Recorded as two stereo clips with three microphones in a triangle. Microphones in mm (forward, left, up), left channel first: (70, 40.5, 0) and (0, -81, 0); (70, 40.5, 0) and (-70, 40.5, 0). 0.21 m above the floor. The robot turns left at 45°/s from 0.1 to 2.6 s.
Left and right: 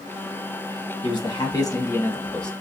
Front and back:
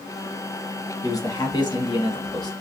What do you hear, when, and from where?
1.0 s a man speaking: 45° left, 1.3 m; by 2.5 s 20° right, 1.3 m